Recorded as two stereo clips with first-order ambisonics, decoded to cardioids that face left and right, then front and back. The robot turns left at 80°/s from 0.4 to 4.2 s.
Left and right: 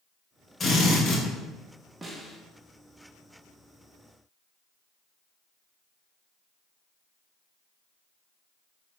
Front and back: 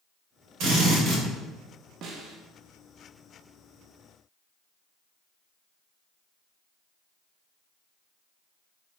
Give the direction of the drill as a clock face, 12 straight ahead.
7 o'clock.